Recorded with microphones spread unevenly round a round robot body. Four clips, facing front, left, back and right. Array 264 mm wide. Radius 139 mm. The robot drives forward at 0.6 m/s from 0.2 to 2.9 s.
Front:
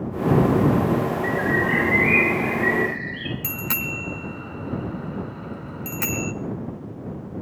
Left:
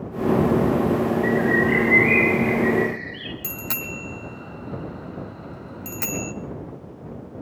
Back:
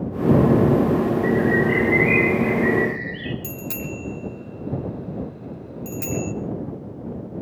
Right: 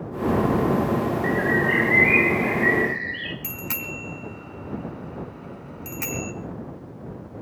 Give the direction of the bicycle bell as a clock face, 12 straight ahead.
11 o'clock.